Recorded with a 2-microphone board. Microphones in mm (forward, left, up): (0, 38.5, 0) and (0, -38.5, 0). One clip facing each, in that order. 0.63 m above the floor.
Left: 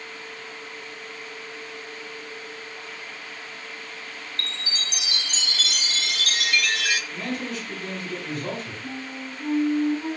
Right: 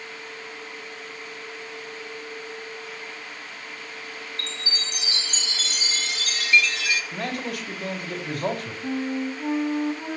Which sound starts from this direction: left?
A chime, at 4.4 s.